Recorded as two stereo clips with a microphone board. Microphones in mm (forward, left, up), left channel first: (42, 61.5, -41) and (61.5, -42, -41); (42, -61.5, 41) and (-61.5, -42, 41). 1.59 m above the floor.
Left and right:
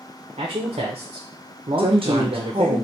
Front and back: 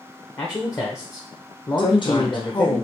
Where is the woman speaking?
50° right, 1.0 m.